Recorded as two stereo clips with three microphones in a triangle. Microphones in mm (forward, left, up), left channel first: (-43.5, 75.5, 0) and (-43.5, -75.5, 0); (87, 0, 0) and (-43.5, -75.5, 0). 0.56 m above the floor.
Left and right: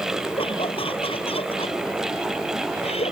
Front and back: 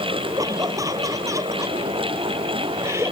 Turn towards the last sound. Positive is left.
turn(degrees=140)